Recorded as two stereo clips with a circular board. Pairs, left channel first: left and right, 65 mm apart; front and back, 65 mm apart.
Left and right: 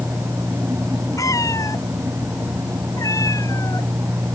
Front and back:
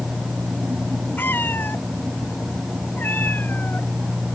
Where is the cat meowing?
60° left.